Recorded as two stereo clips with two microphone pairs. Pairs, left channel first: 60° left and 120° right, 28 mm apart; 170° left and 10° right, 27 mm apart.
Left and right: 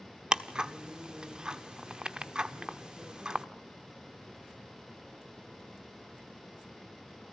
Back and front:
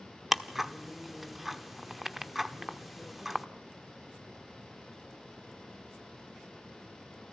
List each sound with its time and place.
0.3 s ticking: 95° right, 1.0 m